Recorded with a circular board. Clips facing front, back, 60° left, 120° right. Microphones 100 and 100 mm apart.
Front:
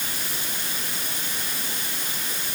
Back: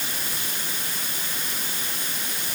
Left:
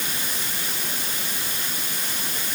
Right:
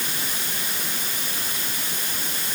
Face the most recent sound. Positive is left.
No sound to turn to.